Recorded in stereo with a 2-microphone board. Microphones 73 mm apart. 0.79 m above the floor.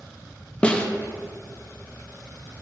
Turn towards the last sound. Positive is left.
turn(degrees=15)  # may be behind; listen again after turning